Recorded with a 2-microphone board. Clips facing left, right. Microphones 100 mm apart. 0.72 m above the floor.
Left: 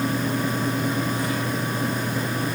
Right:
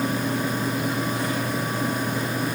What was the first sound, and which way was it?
Only background noise.